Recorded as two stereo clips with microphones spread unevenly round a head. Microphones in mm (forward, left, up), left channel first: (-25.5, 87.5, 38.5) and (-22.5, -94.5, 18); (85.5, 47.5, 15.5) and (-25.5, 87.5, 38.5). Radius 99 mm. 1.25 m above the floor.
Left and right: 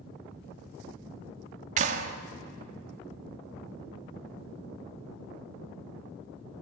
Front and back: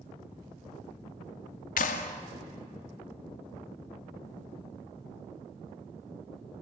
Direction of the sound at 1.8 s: 35° right.